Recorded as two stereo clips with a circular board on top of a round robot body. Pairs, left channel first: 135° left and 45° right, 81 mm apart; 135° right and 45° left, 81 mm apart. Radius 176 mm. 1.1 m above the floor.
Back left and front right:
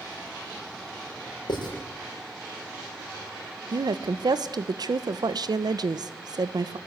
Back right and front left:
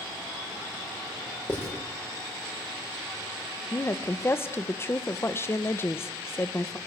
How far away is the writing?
About 6 m.